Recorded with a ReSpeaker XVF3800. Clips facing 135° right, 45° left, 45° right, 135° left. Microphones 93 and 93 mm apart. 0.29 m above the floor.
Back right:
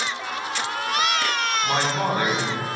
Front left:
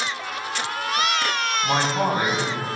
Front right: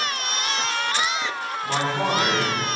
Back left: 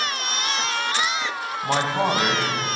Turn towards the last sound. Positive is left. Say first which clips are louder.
# front left 3 dB, back left 2 dB
turn(degrees=115)